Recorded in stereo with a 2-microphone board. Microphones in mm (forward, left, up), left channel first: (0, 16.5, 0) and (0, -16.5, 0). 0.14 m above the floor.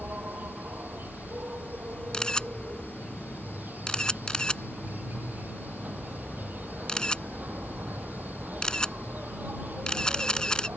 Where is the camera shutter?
25° left (ahead or behind).